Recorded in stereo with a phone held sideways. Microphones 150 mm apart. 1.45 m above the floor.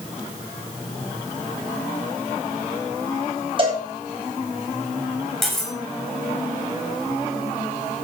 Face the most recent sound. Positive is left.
turn(degrees=0)  # may be behind; listen again after turning